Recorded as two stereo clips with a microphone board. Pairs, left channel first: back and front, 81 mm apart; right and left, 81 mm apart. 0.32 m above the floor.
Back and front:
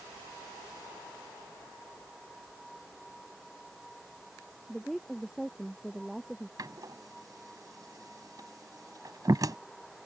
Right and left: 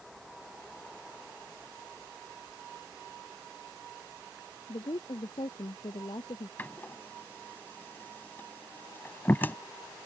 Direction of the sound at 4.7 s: 90° right.